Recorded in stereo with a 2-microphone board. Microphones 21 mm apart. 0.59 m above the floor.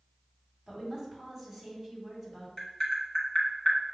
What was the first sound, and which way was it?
A woman speaking, 20° right (ahead or behind).